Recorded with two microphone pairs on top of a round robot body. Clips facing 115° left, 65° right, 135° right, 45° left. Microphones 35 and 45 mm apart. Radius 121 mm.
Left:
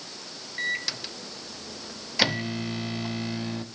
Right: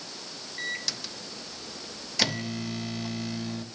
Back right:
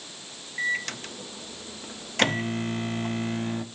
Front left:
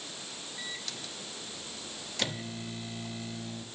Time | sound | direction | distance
0.6 | a microwave | 170° right | 0.6 m